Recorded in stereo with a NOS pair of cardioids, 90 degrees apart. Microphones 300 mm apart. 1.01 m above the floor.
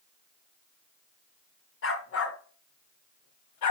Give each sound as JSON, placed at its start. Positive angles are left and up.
{"t": 1.8, "sound": "a dog barking", "azimuth_deg": 45, "distance_m": 3.0}